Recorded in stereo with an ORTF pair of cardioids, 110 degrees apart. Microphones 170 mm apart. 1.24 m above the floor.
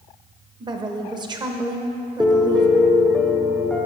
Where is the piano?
5° left, 0.7 m.